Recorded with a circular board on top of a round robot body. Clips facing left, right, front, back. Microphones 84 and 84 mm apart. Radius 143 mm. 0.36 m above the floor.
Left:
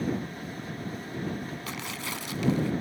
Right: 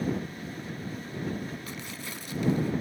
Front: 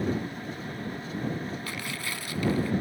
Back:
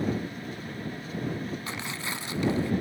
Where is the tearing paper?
110° left.